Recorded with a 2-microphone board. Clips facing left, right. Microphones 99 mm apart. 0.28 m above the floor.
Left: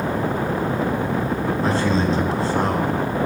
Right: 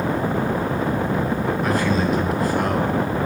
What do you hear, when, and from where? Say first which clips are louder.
1.6 s a man speaking: left 2 dB; 30° left (ahead or behind), 2.5 m